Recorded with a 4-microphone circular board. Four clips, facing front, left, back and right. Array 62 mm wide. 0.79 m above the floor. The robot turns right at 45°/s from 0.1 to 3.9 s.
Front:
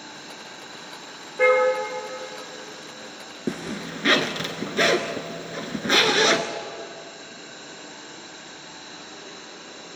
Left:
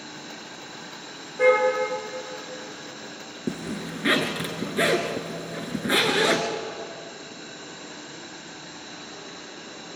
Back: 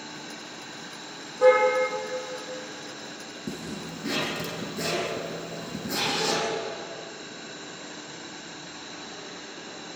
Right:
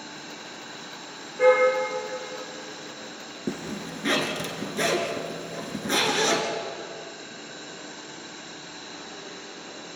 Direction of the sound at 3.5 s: 5° left.